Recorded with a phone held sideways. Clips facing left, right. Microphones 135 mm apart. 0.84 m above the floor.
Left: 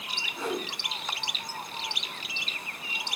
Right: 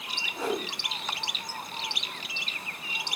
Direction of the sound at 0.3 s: 35° right (ahead or behind).